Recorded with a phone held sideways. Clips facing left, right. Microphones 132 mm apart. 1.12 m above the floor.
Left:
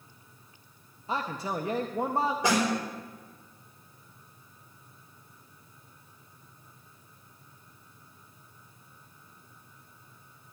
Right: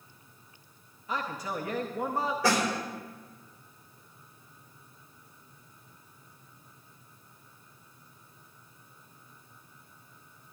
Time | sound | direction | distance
1.1 | a man speaking | 30° left (ahead or behind) | 0.7 m
2.4 | a snare drum | 20° left (ahead or behind) | 4 m